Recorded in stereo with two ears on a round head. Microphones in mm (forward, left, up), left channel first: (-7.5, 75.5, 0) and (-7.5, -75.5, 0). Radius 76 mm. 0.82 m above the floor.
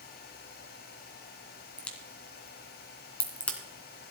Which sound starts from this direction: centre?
A crack, at 1.8 s.